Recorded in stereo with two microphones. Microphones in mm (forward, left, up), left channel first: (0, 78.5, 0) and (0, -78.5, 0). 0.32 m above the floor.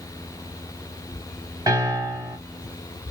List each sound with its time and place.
1.7 s a piano: 25° right (ahead or behind), 1.3 m